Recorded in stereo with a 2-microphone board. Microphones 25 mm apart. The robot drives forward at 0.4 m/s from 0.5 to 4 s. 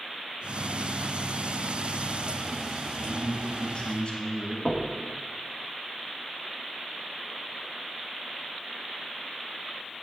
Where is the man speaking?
40° left (ahead or behind), 1.2 m; by 4.5 s 45° left (ahead or behind), 1.1 m.